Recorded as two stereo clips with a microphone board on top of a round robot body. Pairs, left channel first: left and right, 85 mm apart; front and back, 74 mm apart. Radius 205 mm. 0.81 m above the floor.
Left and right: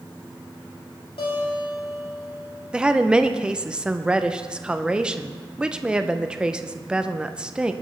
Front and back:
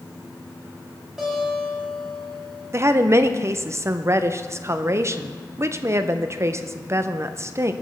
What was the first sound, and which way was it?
A guitar, 100° left.